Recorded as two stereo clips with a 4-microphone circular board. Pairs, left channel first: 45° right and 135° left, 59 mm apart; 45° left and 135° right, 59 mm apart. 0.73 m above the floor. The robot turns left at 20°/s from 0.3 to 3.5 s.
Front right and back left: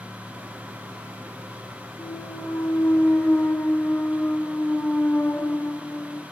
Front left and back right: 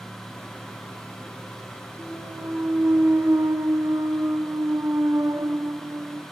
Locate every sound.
2.0 s a clunk: 70° right, 2.5 m; by 6.2 s 100° right, 2.5 m